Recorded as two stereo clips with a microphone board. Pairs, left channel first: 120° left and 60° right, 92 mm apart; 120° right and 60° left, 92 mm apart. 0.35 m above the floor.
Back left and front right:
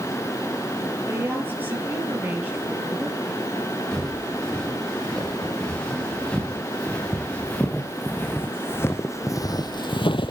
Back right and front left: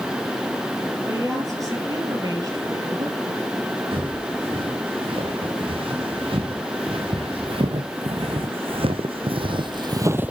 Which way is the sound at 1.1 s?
5° left.